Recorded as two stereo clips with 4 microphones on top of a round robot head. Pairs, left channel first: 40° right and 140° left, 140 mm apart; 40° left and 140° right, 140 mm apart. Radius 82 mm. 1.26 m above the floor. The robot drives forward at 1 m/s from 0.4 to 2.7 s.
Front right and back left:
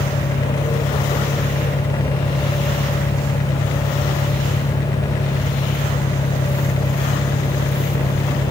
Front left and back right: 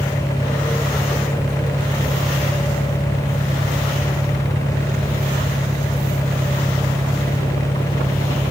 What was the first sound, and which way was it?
An engine running, 60° right.